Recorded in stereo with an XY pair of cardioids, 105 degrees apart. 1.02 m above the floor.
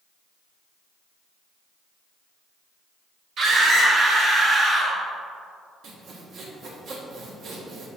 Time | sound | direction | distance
3.4 | a scream | 60° right | 1.9 m
5.8 | sawing | 60° right | 1.4 m